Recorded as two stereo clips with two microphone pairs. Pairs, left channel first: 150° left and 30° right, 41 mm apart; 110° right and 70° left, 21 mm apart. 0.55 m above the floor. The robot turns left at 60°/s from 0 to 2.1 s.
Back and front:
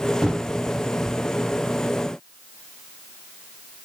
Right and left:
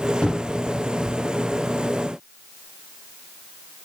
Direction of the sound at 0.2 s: 105° right.